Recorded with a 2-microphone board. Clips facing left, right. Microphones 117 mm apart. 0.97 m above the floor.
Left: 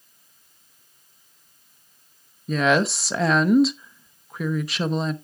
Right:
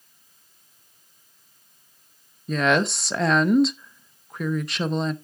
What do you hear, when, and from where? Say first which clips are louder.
2.5 s a woman speaking: left 1 dB; centre (ahead or behind), 0.6 m